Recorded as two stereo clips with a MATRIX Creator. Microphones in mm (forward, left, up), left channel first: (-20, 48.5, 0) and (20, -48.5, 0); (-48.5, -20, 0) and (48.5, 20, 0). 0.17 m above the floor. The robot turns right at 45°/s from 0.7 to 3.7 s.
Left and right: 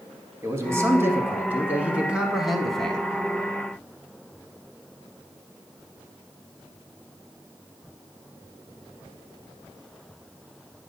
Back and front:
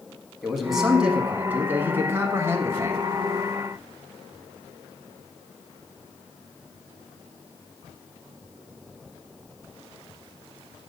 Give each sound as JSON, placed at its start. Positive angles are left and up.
{"t": 0.4, "sound": "a man speaking", "azimuth_deg": -60, "distance_m": 1.1}